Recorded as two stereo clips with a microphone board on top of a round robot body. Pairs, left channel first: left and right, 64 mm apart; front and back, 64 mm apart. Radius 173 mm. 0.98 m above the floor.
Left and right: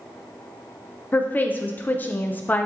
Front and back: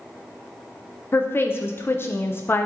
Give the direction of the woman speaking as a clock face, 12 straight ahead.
11 o'clock.